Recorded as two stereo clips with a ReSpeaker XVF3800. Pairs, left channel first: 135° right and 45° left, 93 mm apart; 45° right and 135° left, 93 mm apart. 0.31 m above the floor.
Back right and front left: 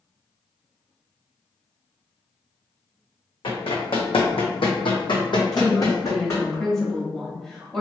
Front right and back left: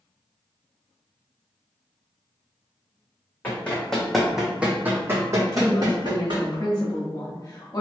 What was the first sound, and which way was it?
Running footsteps, 115° right.